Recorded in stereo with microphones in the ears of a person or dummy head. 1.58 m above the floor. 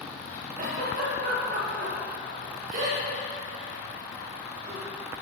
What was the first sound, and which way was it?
A giggle, 45° right (ahead or behind).